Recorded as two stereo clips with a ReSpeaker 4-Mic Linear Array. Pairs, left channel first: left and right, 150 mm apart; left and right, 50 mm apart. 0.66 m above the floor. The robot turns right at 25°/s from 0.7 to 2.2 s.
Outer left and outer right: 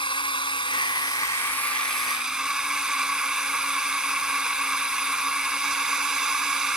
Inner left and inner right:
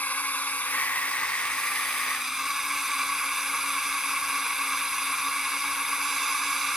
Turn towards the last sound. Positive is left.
turn(degrees=-175)